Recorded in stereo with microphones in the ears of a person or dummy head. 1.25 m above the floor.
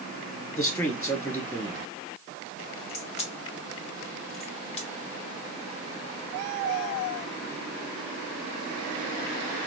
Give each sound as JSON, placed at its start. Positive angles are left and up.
{"t": 0.6, "sound": "a man speaking", "side_deg": 15, "distance_m": 1.6}
{"t": 2.9, "sound": "a crack", "side_deg": 35, "distance_m": 0.9}